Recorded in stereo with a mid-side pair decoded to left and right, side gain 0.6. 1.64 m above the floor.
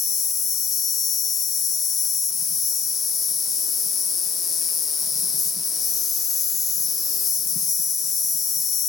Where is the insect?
40° left, 2.5 m.